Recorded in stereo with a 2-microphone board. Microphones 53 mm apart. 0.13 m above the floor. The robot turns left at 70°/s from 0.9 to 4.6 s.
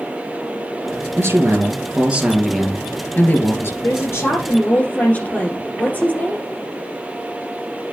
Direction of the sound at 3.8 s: 95° left.